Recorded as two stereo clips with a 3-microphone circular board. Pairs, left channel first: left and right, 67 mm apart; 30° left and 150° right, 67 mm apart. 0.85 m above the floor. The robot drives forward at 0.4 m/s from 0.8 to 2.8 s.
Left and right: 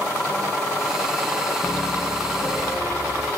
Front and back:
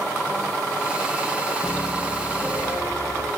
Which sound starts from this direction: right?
A piano, at 1.6 s.